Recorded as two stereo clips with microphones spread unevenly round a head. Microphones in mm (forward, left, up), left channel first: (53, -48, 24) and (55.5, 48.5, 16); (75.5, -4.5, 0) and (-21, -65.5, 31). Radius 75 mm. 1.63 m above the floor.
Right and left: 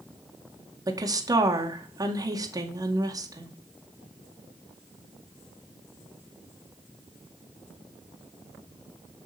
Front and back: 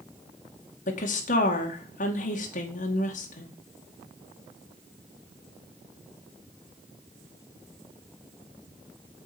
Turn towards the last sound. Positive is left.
turn(degrees=35)